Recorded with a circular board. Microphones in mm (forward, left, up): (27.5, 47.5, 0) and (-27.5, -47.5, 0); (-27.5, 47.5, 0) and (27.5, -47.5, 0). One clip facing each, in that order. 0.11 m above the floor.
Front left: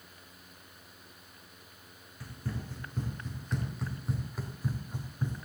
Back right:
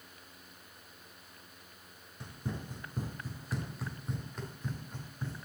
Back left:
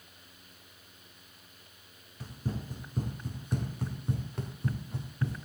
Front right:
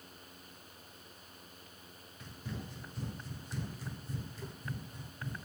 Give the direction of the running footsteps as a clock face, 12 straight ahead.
6 o'clock.